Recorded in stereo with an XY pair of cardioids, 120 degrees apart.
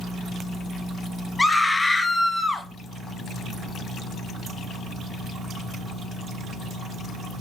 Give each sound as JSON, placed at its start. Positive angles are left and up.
{"t": 1.4, "sound": "a scream", "azimuth_deg": 15, "distance_m": 0.6}